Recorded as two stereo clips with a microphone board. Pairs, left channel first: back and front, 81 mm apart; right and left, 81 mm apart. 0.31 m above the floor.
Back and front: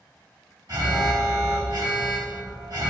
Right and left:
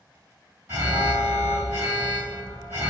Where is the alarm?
30° left, 1.3 m.